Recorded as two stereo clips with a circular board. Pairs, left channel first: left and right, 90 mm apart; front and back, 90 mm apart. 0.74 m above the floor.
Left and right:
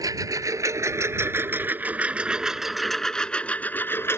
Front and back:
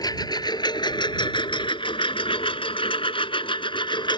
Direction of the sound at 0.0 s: 40° right.